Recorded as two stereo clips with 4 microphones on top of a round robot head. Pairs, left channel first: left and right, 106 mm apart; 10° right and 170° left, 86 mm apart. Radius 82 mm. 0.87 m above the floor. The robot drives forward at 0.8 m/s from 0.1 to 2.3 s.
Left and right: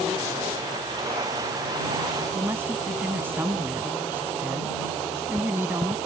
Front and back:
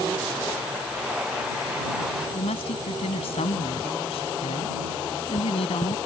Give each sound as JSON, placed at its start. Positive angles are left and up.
{"t": 2.3, "sound": "a woman speaking", "azimuth_deg": -15}